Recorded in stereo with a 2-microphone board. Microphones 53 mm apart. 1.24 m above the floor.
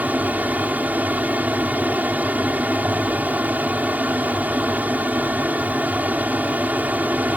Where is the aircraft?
30° right (ahead or behind).